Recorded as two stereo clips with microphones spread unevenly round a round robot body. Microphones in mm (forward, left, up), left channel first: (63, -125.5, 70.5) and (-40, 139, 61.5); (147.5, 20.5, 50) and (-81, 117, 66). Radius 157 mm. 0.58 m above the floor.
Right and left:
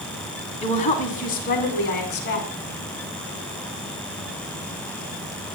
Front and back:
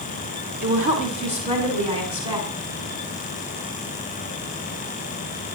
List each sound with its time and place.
0.6 s a woman speaking: 140° right, 5.5 m; by 2.5 s 125° right, 7 m